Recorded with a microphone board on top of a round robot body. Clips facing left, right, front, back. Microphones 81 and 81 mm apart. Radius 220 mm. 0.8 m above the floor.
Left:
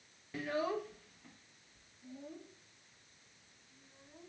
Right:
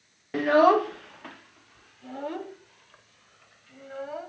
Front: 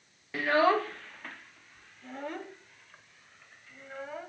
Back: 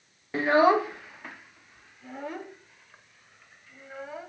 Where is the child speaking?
120° right; by 4.3 s 95° right.